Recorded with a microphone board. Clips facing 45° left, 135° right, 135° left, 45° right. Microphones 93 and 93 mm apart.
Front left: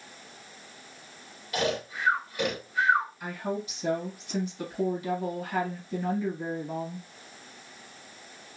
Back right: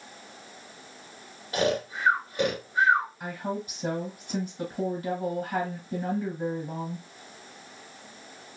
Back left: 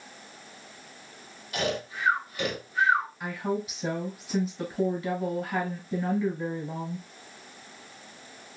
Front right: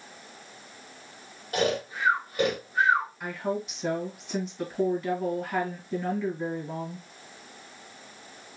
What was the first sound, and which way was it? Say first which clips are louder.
Snoring: back right 3 dB, front right 3 dB; 85° right.